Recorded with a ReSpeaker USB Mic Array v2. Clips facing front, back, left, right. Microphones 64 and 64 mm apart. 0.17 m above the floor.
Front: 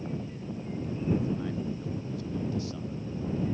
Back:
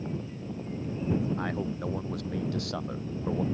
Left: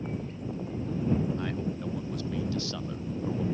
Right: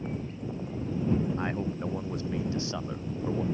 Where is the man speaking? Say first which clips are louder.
Back 2 dB, right 1 dB; 150° right; by 3.4 s 165° right.